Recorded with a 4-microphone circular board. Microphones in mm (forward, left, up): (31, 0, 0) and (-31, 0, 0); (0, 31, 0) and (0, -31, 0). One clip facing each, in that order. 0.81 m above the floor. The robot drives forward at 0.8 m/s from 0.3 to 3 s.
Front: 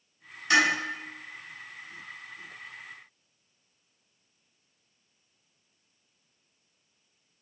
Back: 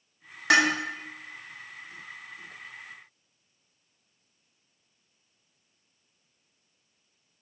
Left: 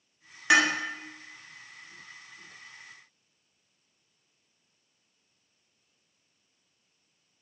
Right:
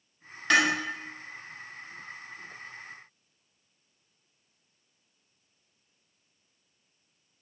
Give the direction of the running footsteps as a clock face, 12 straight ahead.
I don't hear running footsteps.